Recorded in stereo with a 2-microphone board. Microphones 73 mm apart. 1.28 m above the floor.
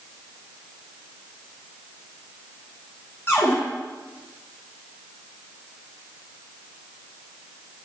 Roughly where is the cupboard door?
Left.